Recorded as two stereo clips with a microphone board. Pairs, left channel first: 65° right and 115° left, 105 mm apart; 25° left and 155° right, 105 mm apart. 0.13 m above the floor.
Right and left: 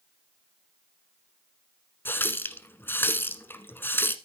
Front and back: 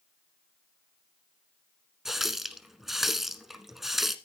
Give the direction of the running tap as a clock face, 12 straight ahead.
2 o'clock.